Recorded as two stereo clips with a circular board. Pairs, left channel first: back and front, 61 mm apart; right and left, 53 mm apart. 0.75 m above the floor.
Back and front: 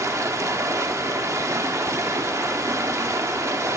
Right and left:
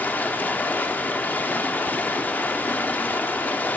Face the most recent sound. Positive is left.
turn(degrees=-35)